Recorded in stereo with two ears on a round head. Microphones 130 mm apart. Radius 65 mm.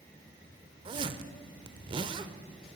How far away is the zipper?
About 0.6 m.